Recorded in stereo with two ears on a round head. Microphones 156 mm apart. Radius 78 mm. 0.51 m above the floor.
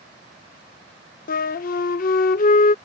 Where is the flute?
50° left (ahead or behind).